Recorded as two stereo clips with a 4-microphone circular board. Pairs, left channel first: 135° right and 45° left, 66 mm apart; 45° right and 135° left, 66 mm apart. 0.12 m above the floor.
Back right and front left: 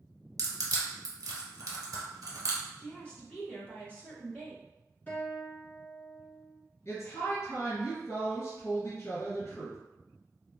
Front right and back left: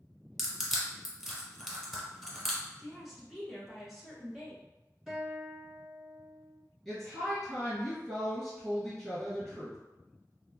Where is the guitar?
150° right, 1.6 m.